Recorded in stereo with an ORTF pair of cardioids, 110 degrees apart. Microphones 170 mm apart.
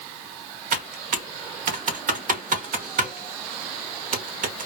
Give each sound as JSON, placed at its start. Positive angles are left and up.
{"t": 0.7, "sound": "typing on a keyboard", "azimuth_deg": -50, "distance_m": 0.7}